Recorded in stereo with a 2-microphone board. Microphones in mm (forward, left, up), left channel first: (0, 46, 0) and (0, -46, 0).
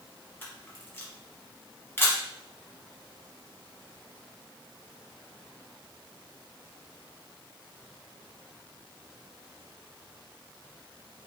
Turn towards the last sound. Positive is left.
turn(degrees=25)  # may be behind; listen again after turning